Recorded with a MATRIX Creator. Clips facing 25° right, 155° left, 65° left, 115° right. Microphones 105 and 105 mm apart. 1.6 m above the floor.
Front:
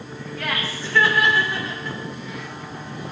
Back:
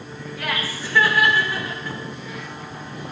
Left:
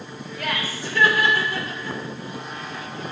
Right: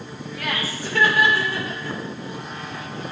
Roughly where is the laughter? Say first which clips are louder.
Even, even; behind right.